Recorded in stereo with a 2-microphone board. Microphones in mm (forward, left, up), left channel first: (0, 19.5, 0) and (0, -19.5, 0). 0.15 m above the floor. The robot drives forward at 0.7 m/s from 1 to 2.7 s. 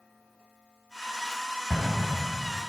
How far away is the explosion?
About 2.5 m.